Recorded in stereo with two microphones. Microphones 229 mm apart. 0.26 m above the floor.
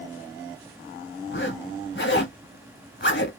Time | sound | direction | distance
1.3 | a zipper | 55° left (ahead or behind) | 1.0 m